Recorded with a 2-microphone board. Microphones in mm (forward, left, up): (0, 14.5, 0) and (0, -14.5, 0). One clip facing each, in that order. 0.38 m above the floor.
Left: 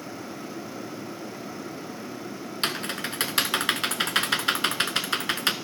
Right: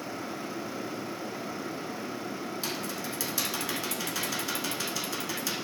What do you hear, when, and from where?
2.6 s typing on a keyboard: 65° left (ahead or behind), 0.6 m